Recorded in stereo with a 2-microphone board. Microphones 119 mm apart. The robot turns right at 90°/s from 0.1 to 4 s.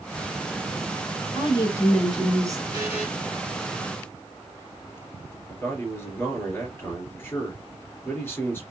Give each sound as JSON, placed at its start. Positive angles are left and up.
{"t": 1.4, "sound": "a woman speaking", "azimuth_deg": 115, "distance_m": 2.5}
{"t": 2.7, "sound": "a buzzer", "azimuth_deg": -35, "distance_m": 2.5}
{"t": 5.5, "sound": "a man speaking", "side_deg": 20, "distance_m": 3.0}